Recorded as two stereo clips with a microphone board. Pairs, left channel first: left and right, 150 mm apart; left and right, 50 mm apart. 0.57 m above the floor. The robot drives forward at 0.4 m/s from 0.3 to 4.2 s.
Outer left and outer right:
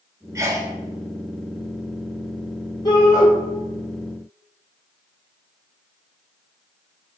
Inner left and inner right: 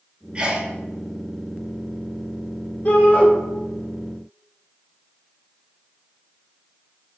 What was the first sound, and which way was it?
A sneeze, 20° right (ahead or behind).